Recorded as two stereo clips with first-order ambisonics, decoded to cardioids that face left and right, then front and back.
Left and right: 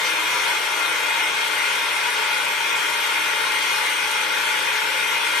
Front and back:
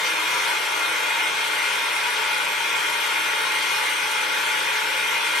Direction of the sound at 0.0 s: 45° left.